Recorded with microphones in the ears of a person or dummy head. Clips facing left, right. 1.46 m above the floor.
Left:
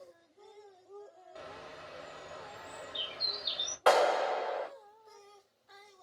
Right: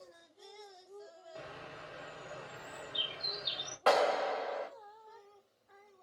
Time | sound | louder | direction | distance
1.4 | a bird | left 1 dB | 15° right (ahead or behind) | 1.2 m
3.9 | a clap | left 3 dB | 15° left (ahead or behind) | 3 m